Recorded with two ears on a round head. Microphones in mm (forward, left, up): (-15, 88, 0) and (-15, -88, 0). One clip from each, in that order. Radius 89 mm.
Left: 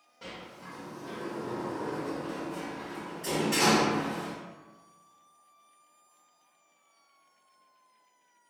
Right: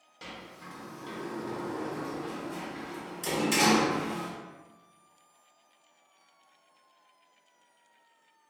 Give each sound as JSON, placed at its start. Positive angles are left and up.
{"t": 0.2, "sound": "a sliding door", "side_deg": -70, "distance_m": 0.7}